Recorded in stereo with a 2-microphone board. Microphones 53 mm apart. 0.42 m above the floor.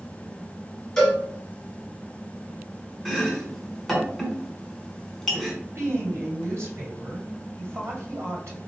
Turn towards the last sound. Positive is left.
turn(degrees=-55)  # may be behind; listen again after turning